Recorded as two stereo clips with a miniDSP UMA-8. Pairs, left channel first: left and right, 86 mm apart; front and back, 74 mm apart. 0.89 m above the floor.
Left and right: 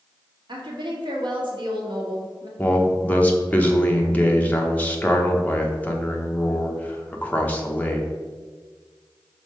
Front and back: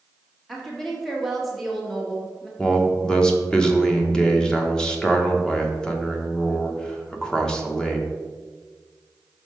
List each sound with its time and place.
0.5 s a woman speaking: 90° right, 1.6 m
2.6 s a man speaking: 60° left, 0.8 m